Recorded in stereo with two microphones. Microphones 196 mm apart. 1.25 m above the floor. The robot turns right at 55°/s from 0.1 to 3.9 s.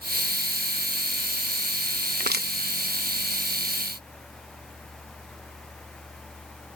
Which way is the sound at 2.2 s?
55° right (ahead or behind).